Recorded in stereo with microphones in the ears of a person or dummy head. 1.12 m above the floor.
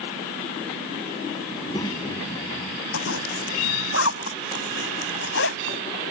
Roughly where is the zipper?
Left.